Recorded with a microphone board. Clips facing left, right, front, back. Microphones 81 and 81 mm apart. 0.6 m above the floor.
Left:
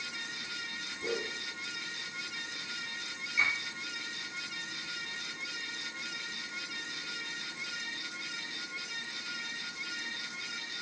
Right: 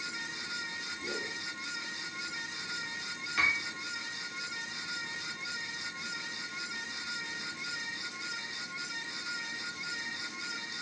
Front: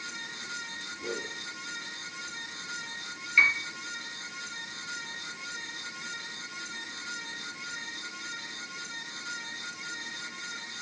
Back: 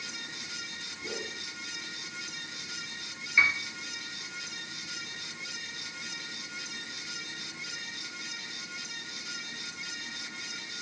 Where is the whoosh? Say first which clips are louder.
Left 4 dB, front 3 dB; 50° left, 2 m.